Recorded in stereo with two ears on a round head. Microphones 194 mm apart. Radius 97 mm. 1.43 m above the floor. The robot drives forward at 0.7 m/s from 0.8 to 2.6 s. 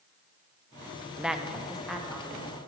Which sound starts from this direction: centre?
A woman speaking, at 1.2 s.